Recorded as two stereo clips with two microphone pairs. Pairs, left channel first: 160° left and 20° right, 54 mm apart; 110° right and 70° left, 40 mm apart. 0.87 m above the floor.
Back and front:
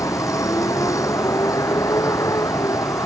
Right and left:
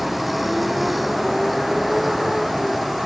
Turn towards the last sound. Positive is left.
turn(degrees=155)